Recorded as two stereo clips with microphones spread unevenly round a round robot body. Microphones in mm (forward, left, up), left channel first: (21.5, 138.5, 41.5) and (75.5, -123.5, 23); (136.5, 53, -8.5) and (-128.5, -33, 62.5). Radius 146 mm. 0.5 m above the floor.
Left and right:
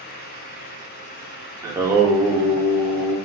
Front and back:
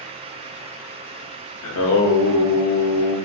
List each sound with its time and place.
1.6 s singing: straight ahead, 0.6 m